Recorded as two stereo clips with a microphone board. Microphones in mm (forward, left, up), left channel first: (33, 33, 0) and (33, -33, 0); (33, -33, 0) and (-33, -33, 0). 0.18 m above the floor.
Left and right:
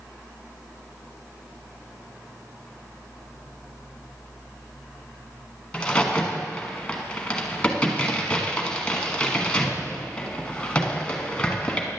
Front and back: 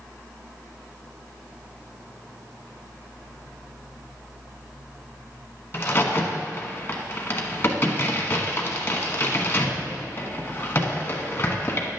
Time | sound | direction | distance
5.7 | a crack | 25° left | 1.2 m